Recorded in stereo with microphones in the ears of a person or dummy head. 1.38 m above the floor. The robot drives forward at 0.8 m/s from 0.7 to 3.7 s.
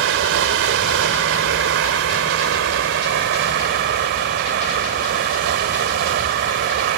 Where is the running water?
80° right; by 7.0 s 60° right (ahead or behind).